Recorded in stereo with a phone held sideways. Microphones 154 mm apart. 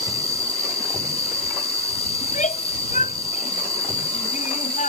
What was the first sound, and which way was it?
An insect, 35° left (ahead or behind).